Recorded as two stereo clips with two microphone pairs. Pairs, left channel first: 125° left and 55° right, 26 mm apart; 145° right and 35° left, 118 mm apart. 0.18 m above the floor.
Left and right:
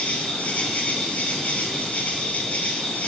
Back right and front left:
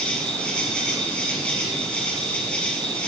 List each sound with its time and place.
0.0 s an insect: 135° left, 5 m